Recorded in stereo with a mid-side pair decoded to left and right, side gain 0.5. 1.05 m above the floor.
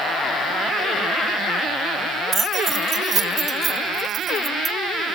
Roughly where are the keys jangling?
Ahead right.